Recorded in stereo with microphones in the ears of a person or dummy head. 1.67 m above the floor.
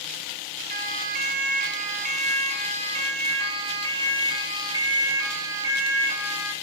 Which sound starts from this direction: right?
A siren, at 0.7 s.